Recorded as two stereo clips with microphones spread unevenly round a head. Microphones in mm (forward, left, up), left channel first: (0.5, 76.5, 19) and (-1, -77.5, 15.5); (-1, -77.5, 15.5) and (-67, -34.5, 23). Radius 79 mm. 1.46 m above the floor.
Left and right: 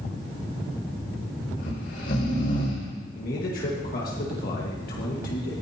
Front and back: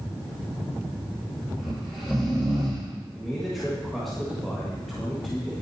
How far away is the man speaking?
About 1.5 m.